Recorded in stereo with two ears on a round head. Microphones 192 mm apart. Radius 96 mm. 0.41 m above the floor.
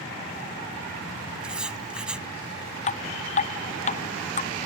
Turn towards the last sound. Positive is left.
turn(degrees=35)  # may be behind; listen again after turning